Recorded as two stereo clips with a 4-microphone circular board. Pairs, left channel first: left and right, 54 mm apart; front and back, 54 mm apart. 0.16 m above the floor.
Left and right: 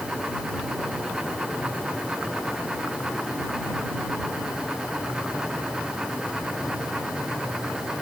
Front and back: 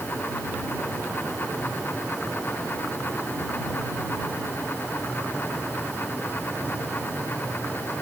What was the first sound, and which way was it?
Only background noise.